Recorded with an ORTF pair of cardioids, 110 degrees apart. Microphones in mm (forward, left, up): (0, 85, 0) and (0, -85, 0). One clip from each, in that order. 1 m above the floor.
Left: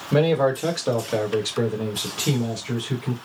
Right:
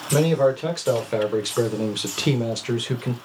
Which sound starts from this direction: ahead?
A man speaking, at 0.1 s.